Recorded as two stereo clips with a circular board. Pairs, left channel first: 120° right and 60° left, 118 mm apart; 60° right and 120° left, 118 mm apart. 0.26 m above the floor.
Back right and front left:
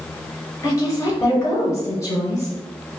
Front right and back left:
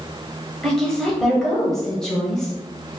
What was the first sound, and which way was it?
A woman speaking, 140° right.